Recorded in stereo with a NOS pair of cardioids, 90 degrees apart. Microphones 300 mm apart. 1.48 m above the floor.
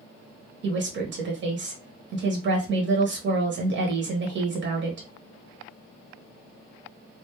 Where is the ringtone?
I don't hear a ringtone.